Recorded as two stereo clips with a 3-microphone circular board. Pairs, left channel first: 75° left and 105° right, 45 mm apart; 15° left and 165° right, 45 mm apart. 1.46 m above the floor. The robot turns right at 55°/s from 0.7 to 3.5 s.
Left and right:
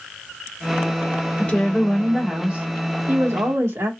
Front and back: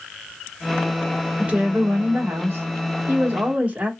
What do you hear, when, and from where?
1.4 s a woman speaking: 130° left, 1.6 m; by 3.9 s 110° right, 1.6 m